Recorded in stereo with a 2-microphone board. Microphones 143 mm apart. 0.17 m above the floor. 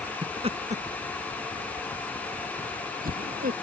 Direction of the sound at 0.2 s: 30° right (ahead or behind).